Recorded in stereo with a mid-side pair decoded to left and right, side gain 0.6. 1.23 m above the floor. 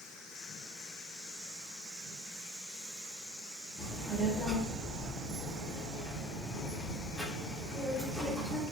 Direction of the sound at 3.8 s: Straight ahead.